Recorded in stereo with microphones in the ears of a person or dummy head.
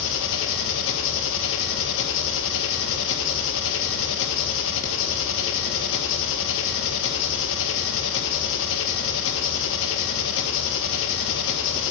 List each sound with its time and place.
0.0 s an engine running: 70° left (ahead or behind), 1.6 m